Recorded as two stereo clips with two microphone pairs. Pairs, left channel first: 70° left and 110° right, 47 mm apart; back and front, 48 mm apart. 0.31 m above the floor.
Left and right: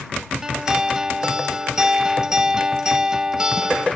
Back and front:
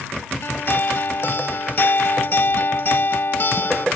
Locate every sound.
0.4 s a guitar: straight behind